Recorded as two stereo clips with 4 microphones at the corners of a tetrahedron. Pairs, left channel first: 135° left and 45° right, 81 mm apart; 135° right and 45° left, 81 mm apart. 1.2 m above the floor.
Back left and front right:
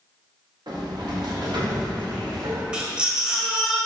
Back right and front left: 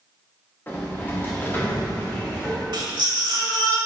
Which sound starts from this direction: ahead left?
A baby crying, at 2.7 s.